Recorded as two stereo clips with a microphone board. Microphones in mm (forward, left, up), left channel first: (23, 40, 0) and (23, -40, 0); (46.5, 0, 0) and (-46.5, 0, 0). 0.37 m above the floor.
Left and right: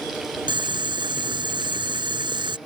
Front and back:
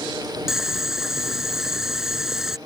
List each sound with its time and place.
0.5 s boiling: 95° right